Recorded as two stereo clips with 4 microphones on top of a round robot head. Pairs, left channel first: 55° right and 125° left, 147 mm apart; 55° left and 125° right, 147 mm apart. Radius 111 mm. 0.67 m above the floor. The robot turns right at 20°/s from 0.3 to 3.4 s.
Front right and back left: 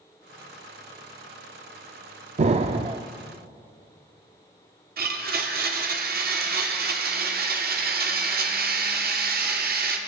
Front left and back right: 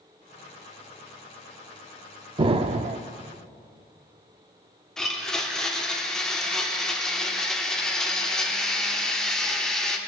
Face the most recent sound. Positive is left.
turn(degrees=140)